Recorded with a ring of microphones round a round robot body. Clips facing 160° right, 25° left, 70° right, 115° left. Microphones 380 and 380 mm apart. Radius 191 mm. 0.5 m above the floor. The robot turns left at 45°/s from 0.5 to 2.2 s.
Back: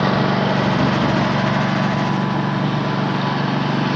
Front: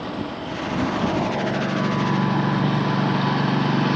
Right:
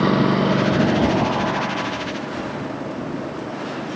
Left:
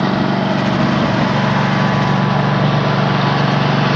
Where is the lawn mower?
170° right; by 4.0 s 115° left.